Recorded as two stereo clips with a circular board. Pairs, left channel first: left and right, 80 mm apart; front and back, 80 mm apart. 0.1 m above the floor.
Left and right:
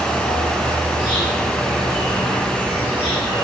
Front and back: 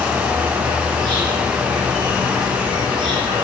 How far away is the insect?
About 5.5 m.